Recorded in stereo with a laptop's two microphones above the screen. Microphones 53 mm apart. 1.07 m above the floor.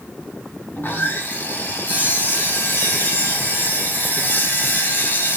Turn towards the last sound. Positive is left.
turn(degrees=40)  # may be behind; listen again after turning